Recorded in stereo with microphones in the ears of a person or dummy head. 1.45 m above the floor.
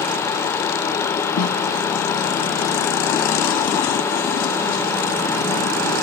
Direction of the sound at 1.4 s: 80° left.